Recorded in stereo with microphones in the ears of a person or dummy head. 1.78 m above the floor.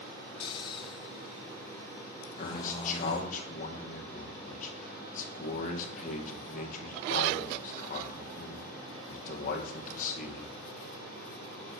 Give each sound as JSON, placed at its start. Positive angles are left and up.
{"t": 0.4, "sound": "snoring", "side_deg": 30, "distance_m": 0.8}
{"t": 2.4, "sound": "a man speaking", "side_deg": 45, "distance_m": 2.5}